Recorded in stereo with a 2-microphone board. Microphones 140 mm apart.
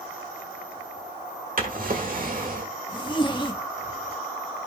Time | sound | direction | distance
1.6 | a drawer | 75° right (ahead or behind) | 1.3 m
2.9 | a zipper | 35° left (ahead or behind) | 1.1 m